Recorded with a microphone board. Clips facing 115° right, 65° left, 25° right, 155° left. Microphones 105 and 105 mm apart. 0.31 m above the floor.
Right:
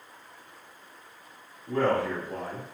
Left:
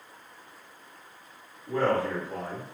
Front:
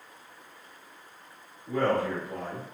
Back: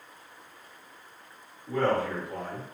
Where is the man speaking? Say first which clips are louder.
Even, even; 35° left, 1.6 m.